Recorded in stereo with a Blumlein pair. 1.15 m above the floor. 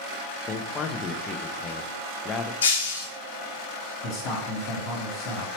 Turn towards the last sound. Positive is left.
turn(degrees=35)